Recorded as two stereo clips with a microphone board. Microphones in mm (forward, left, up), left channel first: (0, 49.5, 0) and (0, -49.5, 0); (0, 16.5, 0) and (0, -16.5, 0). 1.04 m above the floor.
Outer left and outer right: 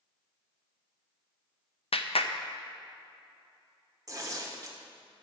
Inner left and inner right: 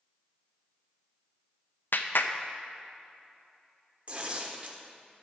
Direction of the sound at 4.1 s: 35° right (ahead or behind).